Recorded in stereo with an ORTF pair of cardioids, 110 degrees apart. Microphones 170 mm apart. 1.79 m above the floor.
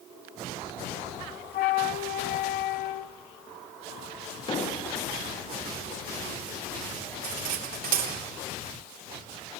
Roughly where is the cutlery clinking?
Ahead right.